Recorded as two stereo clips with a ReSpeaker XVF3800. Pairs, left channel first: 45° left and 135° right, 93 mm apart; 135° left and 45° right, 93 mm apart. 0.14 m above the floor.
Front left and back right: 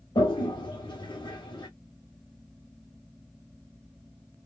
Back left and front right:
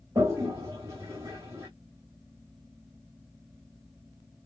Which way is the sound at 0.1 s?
15° left.